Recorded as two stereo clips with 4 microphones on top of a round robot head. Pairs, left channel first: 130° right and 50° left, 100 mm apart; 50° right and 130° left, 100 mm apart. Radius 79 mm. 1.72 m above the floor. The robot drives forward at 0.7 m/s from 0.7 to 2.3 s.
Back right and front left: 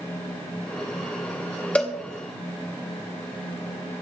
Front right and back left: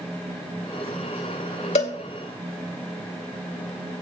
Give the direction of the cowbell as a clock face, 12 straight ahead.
2 o'clock.